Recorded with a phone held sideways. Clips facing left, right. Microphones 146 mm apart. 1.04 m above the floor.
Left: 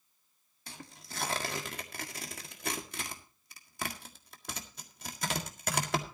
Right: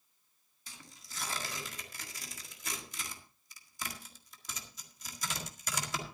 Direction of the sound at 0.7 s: 60° left (ahead or behind).